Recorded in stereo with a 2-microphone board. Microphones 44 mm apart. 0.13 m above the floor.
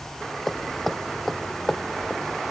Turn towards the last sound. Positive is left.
turn(degrees=5)  # may be behind; listen again after turning